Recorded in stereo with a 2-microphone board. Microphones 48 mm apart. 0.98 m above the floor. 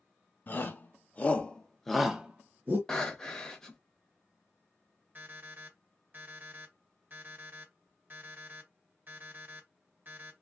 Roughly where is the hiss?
I don't hear a hiss.